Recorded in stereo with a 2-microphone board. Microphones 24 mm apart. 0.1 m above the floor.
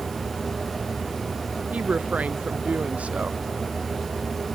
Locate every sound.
1.7 s a woman speaking: 85° right